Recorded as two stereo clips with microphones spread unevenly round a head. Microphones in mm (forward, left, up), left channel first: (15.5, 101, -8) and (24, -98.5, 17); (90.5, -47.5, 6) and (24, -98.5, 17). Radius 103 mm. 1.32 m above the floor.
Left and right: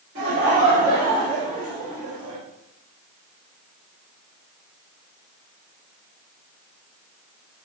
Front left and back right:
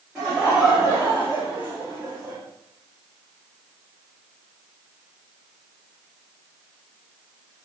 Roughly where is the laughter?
Ahead right.